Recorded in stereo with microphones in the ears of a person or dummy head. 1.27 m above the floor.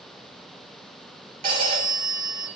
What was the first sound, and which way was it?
A phone ringing, 30° right (ahead or behind).